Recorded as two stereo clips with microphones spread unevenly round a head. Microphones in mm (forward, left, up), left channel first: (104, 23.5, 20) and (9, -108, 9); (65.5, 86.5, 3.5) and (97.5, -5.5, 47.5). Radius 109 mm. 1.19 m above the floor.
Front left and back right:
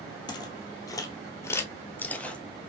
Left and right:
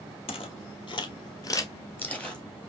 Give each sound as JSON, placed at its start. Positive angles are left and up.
{"t": 0.3, "sound": "footsteps", "azimuth_deg": 100, "distance_m": 1.4}